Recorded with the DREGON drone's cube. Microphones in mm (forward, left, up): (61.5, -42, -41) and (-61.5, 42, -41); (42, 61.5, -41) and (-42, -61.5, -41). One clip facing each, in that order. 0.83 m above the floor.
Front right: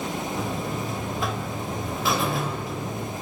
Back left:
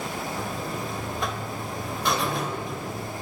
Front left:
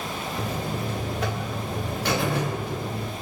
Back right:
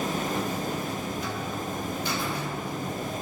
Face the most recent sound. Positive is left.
turn(degrees=55)